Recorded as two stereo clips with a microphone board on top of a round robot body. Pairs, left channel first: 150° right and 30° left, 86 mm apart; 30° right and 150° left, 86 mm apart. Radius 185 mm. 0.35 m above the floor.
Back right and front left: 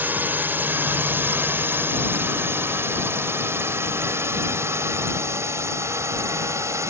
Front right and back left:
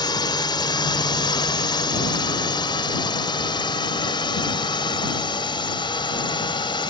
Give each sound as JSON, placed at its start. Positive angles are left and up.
{"t": 0.0, "sound": "a drone", "azimuth_deg": -35}